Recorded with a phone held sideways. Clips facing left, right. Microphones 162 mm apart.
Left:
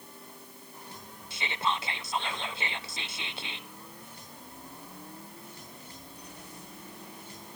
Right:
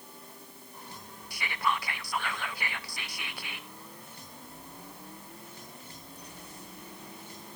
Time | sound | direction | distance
1.3 | whispering | 25° left (ahead or behind) | 0.8 m